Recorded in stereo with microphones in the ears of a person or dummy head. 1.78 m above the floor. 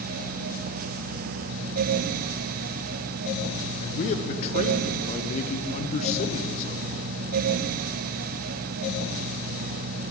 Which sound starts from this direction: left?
A man speaking, at 3.8 s.